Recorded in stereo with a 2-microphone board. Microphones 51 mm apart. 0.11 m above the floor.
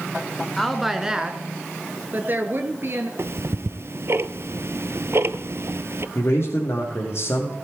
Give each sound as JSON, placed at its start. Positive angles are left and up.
{"t": 0.6, "sound": "a woman speaking", "side_deg": 5, "distance_m": 1.1}
{"t": 3.2, "sound": "ticking", "side_deg": -55, "distance_m": 0.5}
{"t": 6.2, "sound": "a man speaking", "side_deg": 55, "distance_m": 4.5}